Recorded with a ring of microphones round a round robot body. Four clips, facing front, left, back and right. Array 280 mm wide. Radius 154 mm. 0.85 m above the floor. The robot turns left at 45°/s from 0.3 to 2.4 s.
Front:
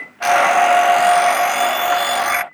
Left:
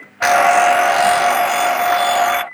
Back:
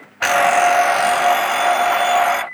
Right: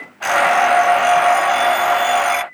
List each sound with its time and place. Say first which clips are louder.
0.2 s an alarm clock: left 3 dB, front 1 dB; 125° left; by 2.4 s 30° left